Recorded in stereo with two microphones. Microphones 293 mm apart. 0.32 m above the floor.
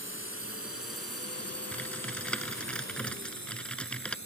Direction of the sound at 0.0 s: 45° left (ahead or behind).